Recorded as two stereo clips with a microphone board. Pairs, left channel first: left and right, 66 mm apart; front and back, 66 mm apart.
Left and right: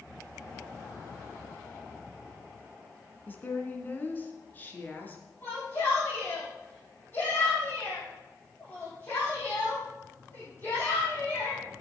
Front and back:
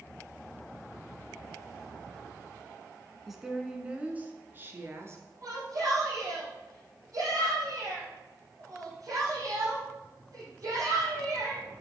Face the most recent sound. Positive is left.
turn(degrees=150)